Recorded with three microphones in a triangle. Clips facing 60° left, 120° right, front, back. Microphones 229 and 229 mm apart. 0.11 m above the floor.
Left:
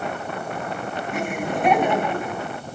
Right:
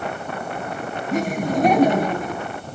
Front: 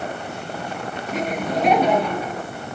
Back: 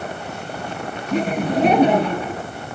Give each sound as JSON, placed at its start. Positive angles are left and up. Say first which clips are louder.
{"t": 1.1, "sound": "laughter", "louder": "right 6 dB, back 5 dB", "azimuth_deg": -140, "distance_m": 1.5}